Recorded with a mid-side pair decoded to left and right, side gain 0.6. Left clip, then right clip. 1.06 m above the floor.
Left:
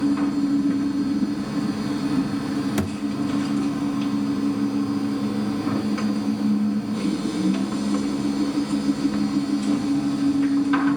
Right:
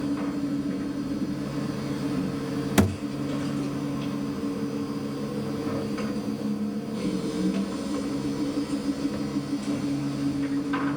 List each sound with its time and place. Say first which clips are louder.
0.0 s a machine running: left 7 dB; 40° left, 5 m
2.8 s a thud: right 3 dB; 30° right, 1.1 m